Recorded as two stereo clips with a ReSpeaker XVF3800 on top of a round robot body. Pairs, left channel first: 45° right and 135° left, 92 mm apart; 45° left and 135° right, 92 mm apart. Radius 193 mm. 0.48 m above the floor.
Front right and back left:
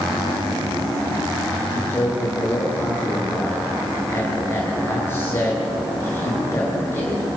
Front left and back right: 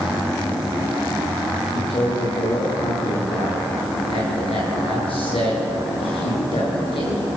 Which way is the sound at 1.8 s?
20° left.